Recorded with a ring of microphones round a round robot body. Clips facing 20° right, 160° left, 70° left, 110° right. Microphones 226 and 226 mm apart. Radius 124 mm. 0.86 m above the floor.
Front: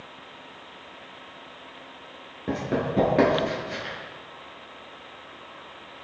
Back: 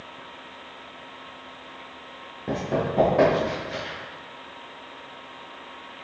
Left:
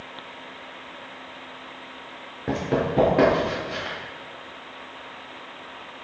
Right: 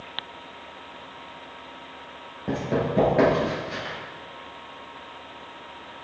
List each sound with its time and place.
2.5 s running footsteps: 45° left, 0.8 m; by 4.0 s 45° right, 1.2 m